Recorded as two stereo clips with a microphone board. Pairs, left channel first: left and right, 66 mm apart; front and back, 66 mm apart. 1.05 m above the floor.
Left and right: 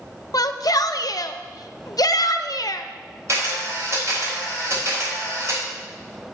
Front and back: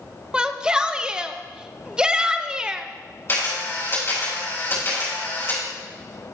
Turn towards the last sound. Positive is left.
turn(degrees=-50)